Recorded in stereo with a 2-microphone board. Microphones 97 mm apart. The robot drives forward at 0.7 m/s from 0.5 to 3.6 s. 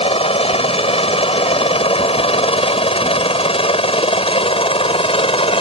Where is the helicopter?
80° left; by 5.6 s 75° left (ahead or behind).